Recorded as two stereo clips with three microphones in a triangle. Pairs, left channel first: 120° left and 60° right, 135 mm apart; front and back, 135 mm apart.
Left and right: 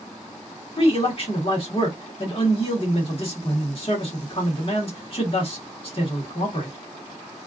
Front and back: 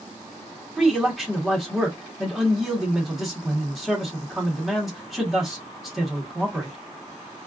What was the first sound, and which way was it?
A man speaking, 90° left.